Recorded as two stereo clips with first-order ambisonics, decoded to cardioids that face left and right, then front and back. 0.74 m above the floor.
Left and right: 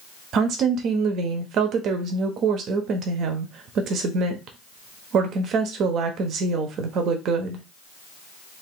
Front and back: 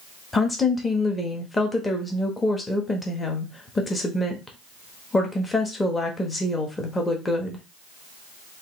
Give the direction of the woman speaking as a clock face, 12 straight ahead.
2 o'clock.